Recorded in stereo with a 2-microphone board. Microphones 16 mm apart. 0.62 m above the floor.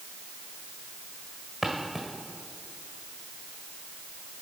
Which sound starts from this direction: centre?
Footsteps, at 1.6 s.